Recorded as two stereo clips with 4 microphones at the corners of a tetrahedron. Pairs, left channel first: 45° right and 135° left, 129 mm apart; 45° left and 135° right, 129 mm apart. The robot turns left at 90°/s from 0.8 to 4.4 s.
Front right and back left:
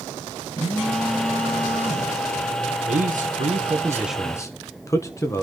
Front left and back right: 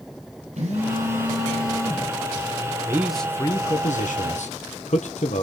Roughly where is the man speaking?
Behind.